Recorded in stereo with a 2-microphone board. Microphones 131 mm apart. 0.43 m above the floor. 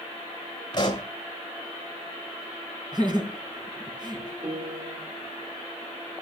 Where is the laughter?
35° right (ahead or behind), 3.5 m.